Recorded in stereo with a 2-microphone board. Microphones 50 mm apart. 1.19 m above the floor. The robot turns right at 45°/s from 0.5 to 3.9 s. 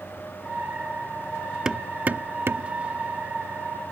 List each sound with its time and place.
1.6 s hammering: 20° right (ahead or behind); by 2.7 s 65° right (ahead or behind)